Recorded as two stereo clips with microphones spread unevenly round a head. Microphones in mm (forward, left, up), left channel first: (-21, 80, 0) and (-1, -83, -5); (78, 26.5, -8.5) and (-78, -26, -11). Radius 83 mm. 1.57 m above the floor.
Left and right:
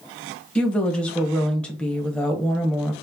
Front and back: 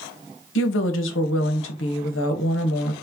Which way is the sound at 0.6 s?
15° left.